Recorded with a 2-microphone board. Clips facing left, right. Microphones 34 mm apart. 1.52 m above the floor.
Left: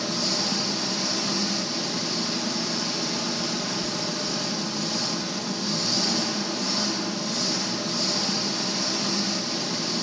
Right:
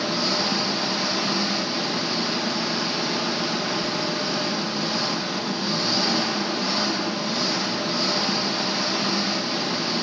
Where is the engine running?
25° right (ahead or behind), 0.9 m.